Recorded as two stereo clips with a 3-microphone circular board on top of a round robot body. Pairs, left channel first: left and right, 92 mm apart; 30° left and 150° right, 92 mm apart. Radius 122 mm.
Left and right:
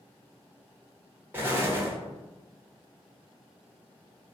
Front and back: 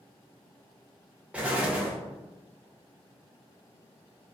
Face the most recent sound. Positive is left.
turn(degrees=-95)